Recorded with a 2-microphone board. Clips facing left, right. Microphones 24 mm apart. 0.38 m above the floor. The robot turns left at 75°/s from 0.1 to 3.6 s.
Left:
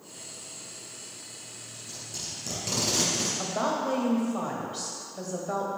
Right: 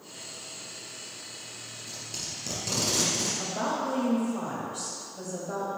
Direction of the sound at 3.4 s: 45° left (ahead or behind).